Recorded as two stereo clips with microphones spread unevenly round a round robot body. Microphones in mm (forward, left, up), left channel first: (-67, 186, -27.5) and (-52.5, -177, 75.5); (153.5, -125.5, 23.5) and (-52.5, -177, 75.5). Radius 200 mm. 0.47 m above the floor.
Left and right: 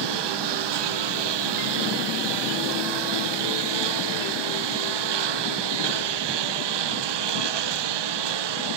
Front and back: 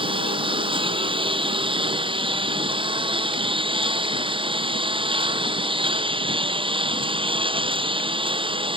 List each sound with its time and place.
0.0 s a lawn mower: 100° right